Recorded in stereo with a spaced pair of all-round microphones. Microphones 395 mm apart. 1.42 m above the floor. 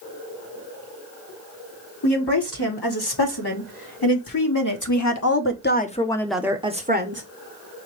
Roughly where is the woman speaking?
Left.